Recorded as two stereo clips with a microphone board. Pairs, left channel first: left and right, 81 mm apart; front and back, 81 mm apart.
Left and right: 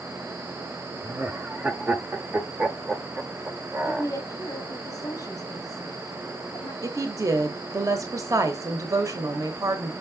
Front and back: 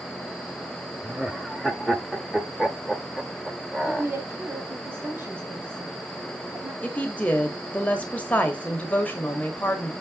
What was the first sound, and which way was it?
Laughter, 100° right.